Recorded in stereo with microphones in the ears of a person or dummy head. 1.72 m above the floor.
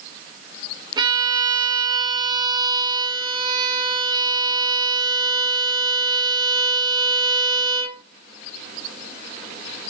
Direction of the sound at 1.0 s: 30° right (ahead or behind).